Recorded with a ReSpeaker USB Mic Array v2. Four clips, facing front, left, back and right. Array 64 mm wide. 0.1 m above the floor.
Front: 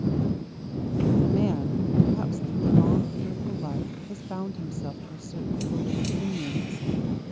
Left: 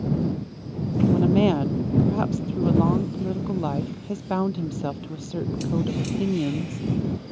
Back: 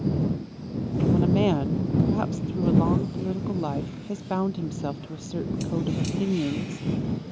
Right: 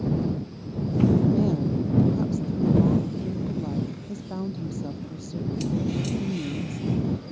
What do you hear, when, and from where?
1.1 s a woman speaking: 125° left